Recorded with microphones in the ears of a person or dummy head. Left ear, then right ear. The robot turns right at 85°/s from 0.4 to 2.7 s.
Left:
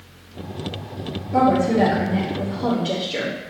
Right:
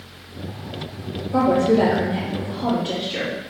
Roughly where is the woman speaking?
Behind right.